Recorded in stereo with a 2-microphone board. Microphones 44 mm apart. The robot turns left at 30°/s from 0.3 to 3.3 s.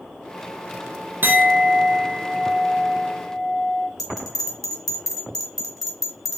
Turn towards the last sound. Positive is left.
turn(degrees=5)  # may be behind; listen again after turning